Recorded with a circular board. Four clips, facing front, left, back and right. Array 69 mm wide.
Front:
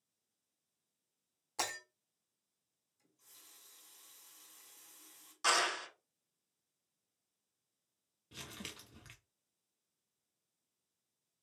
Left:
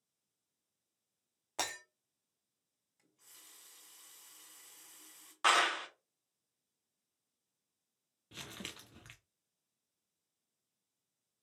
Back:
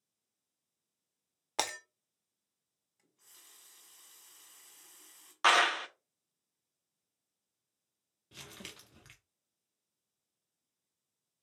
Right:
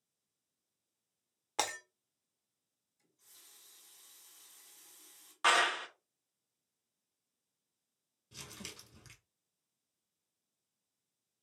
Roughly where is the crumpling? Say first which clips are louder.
Left 3 dB, front 1 dB; left.